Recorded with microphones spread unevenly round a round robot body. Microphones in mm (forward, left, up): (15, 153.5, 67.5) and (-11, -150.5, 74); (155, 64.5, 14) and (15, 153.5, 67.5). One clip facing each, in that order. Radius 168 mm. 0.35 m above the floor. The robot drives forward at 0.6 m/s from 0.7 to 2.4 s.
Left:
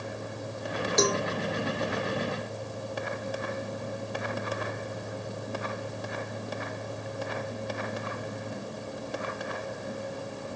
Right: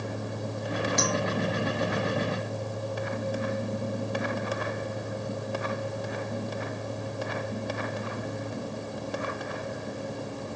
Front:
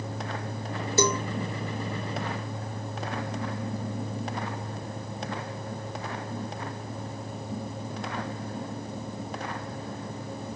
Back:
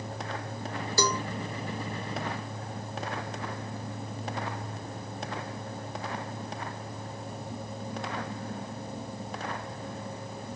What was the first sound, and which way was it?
A cowbell, 35° left.